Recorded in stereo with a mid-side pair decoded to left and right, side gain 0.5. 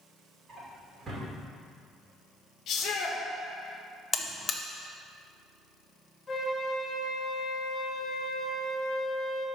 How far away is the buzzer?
About 0.8 m.